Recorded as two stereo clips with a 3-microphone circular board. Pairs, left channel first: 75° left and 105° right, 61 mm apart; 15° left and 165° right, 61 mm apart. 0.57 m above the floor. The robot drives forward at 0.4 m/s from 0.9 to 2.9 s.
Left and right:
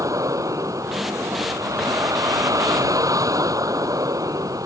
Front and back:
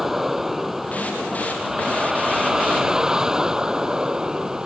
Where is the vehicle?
80° right; by 4.7 s 85° right.